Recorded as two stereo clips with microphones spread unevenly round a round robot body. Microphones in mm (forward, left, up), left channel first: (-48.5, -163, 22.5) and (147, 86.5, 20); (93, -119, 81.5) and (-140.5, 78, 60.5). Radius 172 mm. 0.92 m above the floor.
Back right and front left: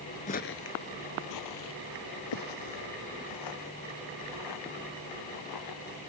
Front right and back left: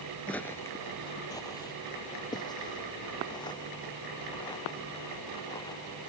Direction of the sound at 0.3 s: 110° right.